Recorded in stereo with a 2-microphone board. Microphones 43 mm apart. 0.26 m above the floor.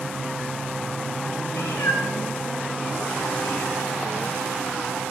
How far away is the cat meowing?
About 9.5 m.